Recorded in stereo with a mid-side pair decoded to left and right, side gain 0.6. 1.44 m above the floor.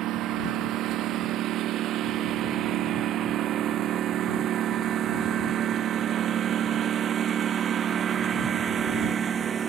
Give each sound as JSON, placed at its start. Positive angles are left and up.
{"t": 0.0, "sound": "a lawn mower", "azimuth_deg": -60}